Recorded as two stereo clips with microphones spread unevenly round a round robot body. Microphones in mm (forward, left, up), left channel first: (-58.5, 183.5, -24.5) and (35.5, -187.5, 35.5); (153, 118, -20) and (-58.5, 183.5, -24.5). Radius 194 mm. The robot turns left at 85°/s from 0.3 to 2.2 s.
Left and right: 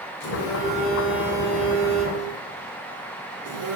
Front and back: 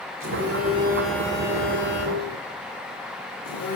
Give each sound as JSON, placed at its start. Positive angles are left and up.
{"t": 0.2, "sound": "a phone buzzing", "azimuth_deg": 140, "distance_m": 7.5}